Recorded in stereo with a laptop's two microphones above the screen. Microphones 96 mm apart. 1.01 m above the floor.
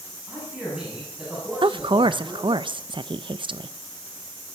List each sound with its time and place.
0.3 s a man speaking: 10° right (ahead or behind), 8.5 m
1.6 s a woman speaking: 60° right (ahead or behind), 0.5 m